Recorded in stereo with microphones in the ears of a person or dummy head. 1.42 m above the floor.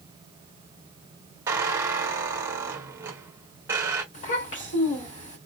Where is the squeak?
20° right (ahead or behind), 1.1 m.